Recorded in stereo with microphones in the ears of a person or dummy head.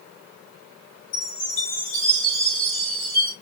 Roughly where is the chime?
Left.